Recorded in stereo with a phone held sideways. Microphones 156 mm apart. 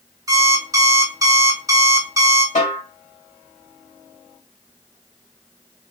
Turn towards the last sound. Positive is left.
turn(degrees=55)  # may be behind; listen again after turning